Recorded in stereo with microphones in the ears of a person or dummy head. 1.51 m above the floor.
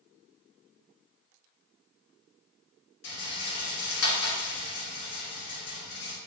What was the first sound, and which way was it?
A rattle, 75° left (ahead or behind).